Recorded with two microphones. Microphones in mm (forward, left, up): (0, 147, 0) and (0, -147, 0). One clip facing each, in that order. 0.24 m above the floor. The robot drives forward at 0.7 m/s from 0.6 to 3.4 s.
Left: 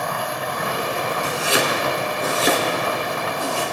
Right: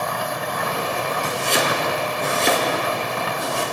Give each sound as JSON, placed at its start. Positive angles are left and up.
{"t": 1.2, "sound": "chopping", "side_deg": 10, "distance_m": 1.2}